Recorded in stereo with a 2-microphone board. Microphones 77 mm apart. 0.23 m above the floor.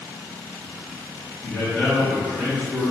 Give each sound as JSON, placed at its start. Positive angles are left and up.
{"t": 1.4, "sound": "a man speaking", "side_deg": 35, "distance_m": 1.5}